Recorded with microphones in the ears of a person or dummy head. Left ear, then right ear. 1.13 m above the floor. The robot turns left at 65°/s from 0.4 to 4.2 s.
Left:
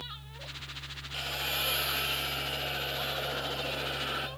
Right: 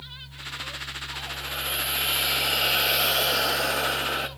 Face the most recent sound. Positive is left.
turn(degrees=-155)